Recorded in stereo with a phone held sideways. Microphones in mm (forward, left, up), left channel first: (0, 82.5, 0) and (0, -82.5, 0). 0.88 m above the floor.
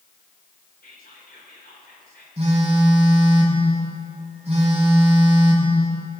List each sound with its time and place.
0.8 s whispering: 75° left (ahead or behind), 3.5 m
2.4 s a phone buzzing: 40° right (ahead or behind), 4 m